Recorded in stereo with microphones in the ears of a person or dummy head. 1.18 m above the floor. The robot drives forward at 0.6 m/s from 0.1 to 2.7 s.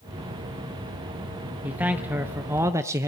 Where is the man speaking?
10° right (ahead or behind), 1.3 m; by 3.1 s 20° right (ahead or behind), 0.7 m.